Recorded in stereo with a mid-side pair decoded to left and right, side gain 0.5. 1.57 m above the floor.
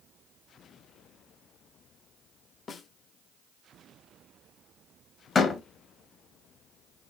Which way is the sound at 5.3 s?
40° left.